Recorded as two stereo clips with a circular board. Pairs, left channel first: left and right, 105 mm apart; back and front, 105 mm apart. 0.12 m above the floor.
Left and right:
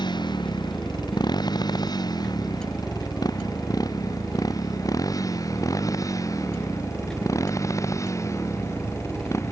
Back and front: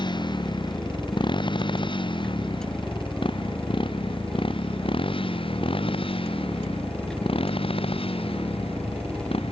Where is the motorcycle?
135° left; by 9.5 s 150° left.